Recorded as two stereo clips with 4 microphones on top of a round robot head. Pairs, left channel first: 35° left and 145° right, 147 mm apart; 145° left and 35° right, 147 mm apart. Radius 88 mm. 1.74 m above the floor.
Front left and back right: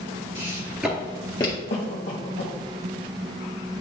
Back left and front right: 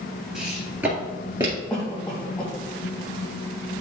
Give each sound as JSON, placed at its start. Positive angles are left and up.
{"t": 0.3, "sound": "footsteps", "azimuth_deg": -120, "distance_m": 1.9}
{"t": 1.7, "sound": "a cough", "azimuth_deg": 60, "distance_m": 1.6}